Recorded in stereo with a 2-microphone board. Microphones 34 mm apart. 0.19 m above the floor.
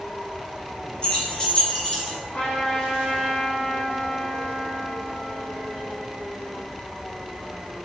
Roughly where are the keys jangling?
Left.